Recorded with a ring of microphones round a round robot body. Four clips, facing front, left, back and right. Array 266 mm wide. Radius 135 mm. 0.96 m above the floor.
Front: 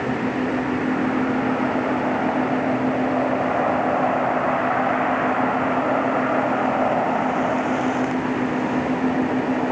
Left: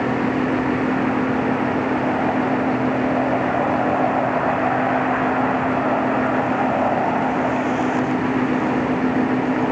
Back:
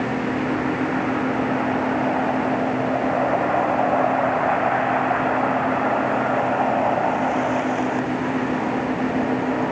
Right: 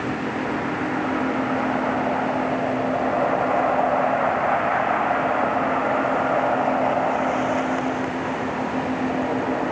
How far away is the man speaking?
I don't hear a man speaking.